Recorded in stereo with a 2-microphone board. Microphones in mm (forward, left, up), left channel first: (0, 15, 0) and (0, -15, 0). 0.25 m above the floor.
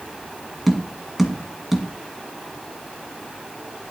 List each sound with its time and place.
0.7 s tapping: 5° right (ahead or behind), 1.8 m